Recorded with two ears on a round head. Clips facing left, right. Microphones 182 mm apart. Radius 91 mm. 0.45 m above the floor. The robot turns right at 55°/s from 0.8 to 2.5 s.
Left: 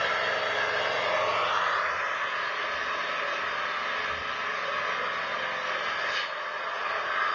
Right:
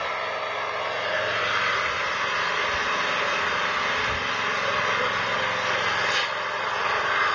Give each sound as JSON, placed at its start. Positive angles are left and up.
{"t": 0.0, "sound": "an engine running", "azimuth_deg": 170, "distance_m": 1.0}